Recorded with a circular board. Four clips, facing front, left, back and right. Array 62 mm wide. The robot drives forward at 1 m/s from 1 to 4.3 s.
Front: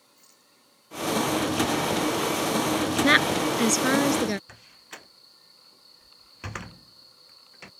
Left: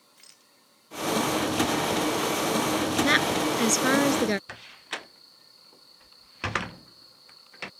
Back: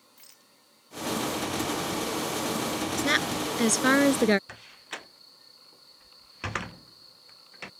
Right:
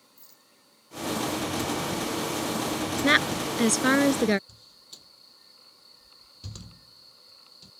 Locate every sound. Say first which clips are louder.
0.2 s a rattle: left 1 dB, back 1 dB; 120° left
3.0 s a woman speaking: right 1 dB, front 7 dB; 15° right; by 4.4 s 165° right
4.5 s a door slam: left 19 dB, back 5 dB; 105° left